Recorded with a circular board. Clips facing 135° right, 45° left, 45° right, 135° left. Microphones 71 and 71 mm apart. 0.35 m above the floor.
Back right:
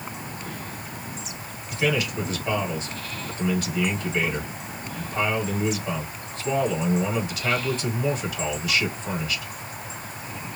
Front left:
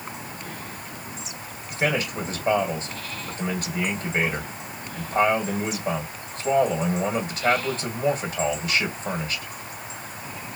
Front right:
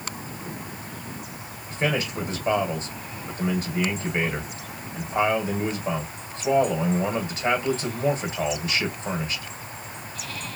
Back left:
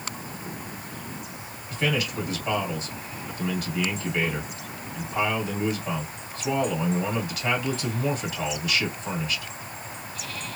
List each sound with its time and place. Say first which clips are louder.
1.7 s a man speaking: even, front right 1 dB; 5° left, 1.9 m